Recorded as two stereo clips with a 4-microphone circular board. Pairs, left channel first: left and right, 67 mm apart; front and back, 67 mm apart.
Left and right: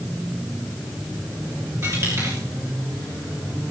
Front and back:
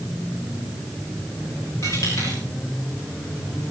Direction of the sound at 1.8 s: 45° right.